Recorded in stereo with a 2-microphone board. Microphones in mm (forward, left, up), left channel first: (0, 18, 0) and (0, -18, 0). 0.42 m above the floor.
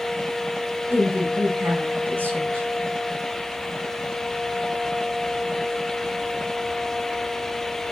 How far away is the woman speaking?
About 3 m.